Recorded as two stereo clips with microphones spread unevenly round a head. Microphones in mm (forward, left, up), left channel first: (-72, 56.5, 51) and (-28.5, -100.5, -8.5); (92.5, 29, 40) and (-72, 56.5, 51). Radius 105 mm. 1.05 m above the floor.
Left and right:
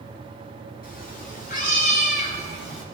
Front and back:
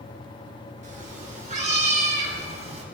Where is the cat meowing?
125° left, 5 m; by 2.9 s 120° left, 2.5 m.